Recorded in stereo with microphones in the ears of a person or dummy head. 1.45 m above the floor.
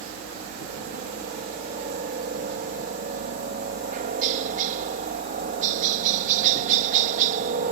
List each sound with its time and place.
0.0 s a helicopter: 50° right (ahead or behind)